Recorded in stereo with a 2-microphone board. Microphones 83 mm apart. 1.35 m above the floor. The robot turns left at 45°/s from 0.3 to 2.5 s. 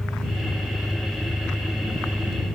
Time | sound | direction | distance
0.0 | an engine running | 125° left | ?